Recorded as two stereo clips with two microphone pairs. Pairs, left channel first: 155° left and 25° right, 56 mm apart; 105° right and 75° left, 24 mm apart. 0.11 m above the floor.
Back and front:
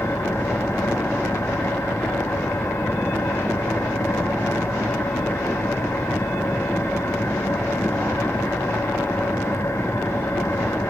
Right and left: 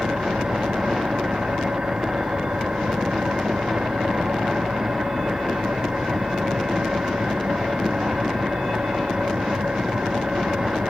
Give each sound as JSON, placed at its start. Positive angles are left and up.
{"t": 0.0, "sound": "an engine running", "azimuth_deg": 110, "distance_m": 3.5}